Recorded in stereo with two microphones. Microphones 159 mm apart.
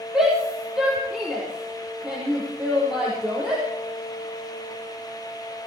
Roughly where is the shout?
Centre.